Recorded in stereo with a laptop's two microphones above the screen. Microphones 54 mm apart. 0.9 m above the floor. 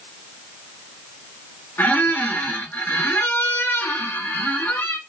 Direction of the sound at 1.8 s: 35° left (ahead or behind).